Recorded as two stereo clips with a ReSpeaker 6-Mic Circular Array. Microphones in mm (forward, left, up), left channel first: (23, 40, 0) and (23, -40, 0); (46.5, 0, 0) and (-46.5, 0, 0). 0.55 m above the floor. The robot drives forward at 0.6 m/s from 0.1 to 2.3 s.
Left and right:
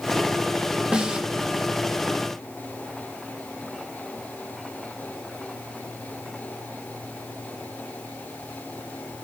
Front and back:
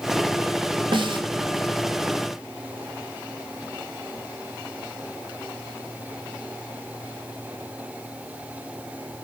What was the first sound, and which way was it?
A snare drum, 170° right.